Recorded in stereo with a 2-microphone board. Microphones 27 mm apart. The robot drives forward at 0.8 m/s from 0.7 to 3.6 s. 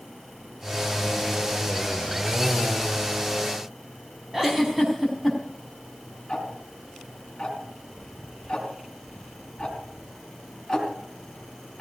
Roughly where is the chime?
I don't hear a chime.